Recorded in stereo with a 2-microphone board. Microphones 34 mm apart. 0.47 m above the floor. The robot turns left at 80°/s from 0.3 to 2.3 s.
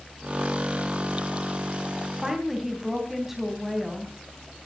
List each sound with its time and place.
2.2 s a woman speaking: 15° right (ahead or behind), 3 m; by 4.1 s 10° right (ahead or behind), 3 m